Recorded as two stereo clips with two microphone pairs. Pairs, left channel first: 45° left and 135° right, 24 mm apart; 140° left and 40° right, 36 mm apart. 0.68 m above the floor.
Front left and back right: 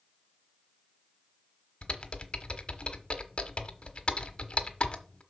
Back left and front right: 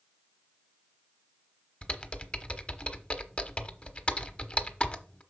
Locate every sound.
1.8 s typing on a keyboard: 80° left, 1.0 m